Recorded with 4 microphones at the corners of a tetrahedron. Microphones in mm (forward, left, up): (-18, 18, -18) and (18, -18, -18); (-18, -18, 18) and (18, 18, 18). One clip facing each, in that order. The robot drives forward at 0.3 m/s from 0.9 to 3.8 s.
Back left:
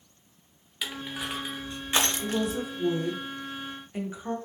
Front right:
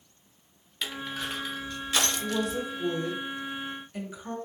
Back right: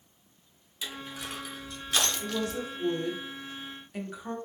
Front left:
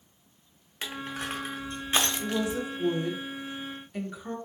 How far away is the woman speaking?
About 0.7 m.